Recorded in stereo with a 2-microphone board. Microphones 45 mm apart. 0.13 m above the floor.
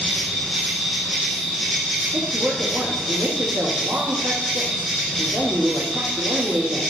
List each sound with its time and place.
0.0 s an insect: centre (ahead or behind), 3 m
2.1 s a woman speaking: 70° right (ahead or behind), 4 m